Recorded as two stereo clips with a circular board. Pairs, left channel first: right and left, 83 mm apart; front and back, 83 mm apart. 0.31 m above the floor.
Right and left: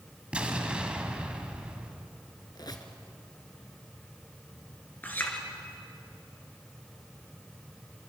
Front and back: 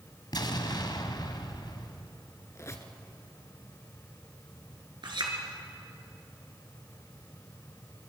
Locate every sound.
0.3 s an explosion: 15° left, 1.8 m
2.5 s a squeak: 55° right, 1.8 m
5.0 s a clink: 155° right, 3.5 m